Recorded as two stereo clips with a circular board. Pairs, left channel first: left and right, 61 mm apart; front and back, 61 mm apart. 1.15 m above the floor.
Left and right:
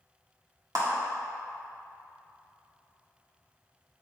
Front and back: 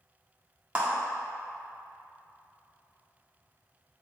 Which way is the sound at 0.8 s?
110° right.